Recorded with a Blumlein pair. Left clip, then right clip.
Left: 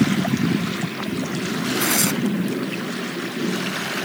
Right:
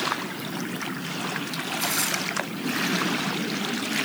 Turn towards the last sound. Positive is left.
turn(degrees=20)